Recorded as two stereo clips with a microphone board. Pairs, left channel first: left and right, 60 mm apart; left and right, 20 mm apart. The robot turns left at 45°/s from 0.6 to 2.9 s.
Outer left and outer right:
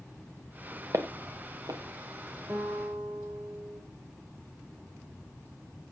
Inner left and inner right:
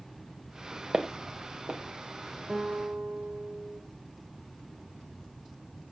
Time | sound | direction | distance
0.9 | footsteps | 60° right (ahead or behind) | 1.6 m
2.5 | a guitar | 55° right (ahead or behind) | 9 m